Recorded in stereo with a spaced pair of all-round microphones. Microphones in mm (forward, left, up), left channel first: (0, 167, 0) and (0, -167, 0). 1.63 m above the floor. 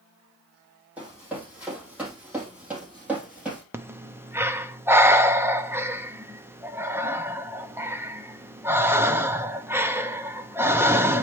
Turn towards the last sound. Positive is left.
turn(degrees=-5)  # may be behind; listen again after turning